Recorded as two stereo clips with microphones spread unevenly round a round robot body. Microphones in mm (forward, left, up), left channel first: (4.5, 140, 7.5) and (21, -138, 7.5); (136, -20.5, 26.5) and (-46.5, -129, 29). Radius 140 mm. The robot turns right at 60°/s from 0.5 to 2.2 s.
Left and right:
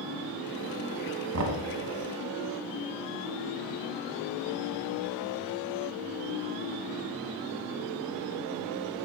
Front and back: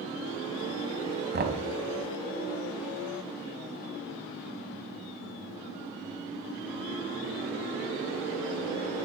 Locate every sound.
1.3 s knocking: 115° right, 1.9 m; by 1.7 s 100° right, 1.9 m